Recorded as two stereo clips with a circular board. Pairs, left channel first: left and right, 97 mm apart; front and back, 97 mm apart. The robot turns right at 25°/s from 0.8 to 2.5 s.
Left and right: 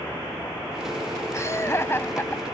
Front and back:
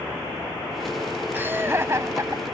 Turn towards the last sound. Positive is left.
turn(degrees=150)